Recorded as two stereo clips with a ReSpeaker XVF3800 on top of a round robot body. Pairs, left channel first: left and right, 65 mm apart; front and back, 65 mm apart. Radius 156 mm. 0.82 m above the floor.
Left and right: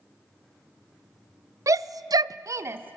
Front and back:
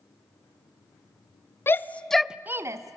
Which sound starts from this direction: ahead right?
A shout, at 1.7 s.